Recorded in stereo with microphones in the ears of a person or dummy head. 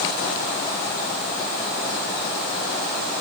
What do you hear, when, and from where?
Only background noise.